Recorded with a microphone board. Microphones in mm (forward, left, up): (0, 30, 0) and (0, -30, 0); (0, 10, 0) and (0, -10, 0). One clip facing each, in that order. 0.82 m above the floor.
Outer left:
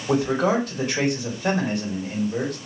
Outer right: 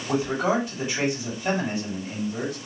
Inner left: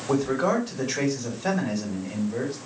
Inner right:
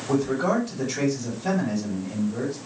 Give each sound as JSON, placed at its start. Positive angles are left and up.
{"t": 0.1, "sound": "a man speaking", "side_deg": 70, "distance_m": 2.5}